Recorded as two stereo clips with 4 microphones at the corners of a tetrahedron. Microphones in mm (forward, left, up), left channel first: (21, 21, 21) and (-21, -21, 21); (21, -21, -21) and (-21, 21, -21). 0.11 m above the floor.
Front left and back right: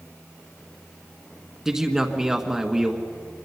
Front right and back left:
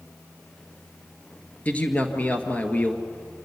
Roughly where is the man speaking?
Ahead right.